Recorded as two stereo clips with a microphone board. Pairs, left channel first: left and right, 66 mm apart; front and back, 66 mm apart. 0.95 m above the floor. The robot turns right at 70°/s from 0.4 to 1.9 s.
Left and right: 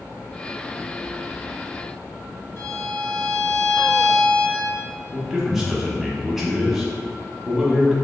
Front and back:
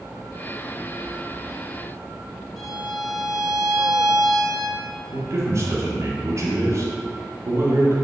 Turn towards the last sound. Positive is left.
turn(degrees=-170)